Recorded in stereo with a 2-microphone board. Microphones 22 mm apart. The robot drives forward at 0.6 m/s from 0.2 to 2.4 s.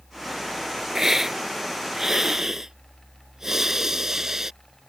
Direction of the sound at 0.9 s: 20° right (ahead or behind).